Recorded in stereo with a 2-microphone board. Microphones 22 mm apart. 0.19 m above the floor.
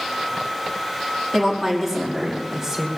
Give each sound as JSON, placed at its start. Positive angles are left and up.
{"t": 1.3, "sound": "a woman speaking", "side_deg": 5, "distance_m": 6.0}